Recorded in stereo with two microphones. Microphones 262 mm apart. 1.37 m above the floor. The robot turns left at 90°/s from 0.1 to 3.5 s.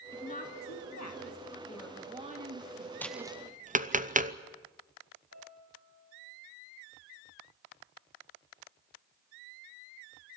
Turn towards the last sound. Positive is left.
turn(degrees=-70)  # may be behind; listen again after turning